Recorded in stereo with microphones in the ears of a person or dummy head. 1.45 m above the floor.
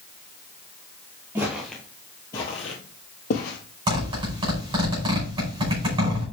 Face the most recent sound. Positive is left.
turn(degrees=-25)  # may be behind; listen again after turning